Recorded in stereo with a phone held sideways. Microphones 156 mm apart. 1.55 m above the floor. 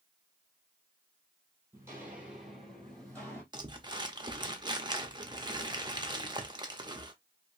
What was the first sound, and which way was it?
Footsteps, 15° right (ahead or behind).